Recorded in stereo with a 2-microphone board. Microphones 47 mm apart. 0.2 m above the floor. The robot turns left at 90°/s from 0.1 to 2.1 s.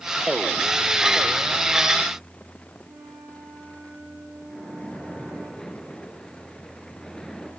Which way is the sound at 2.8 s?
70° right (ahead or behind).